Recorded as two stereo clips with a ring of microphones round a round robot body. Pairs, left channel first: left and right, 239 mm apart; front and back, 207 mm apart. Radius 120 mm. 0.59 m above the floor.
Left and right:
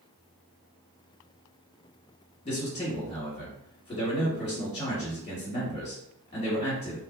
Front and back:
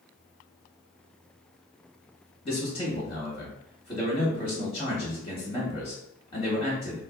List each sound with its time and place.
2.4 s a man speaking: 40° left, 1.4 m